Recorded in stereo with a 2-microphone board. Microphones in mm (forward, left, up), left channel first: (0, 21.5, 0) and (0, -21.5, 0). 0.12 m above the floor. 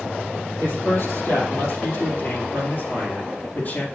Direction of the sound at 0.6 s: 65° left (ahead or behind).